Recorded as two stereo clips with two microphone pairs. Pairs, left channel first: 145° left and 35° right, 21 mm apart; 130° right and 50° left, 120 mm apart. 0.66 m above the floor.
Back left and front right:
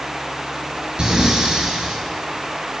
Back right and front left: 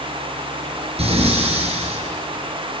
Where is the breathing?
15° left, 5 m.